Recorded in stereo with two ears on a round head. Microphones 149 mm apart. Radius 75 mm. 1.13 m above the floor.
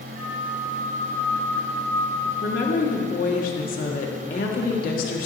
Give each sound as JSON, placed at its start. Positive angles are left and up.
{"t": 0.1, "sound": "a flute", "side_deg": -40, "distance_m": 2.5}
{"t": 2.4, "sound": "a woman speaking", "side_deg": 55, "distance_m": 1.1}